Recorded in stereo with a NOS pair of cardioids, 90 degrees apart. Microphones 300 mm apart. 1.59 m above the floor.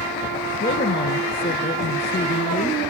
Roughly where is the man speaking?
Ahead left.